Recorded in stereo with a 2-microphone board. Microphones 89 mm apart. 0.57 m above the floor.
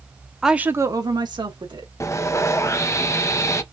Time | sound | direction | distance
0.4 | a woman speaking | centre (ahead or behind) | 0.6 m
2.0 | sawing | 35° left (ahead or behind) | 0.6 m